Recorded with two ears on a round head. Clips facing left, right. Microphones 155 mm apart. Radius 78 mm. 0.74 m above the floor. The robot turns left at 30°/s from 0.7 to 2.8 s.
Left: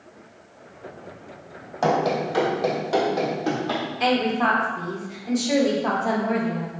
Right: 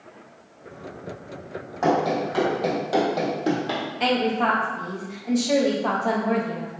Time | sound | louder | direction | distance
1.8 | running footsteps | even | 35° left (ahead or behind) | 1.5 m
4.0 | a woman speaking | even | centre (ahead or behind) | 0.7 m